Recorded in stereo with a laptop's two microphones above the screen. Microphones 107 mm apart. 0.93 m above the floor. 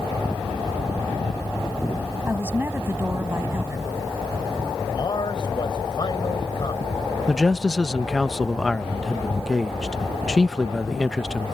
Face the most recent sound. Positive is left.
turn(degrees=5)  # may be behind; listen again after turning